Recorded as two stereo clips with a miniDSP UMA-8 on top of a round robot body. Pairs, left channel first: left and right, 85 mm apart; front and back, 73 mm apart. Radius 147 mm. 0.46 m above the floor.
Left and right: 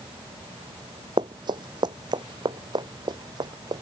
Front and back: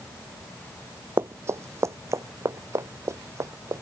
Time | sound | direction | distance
1.2 | running footsteps | 125° right | ?